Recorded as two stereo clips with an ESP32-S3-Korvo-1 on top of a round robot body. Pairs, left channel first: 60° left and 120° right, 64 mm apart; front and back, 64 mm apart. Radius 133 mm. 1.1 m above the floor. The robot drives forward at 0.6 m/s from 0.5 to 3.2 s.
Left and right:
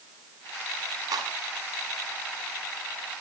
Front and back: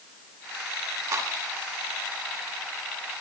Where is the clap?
145° right, 9 m.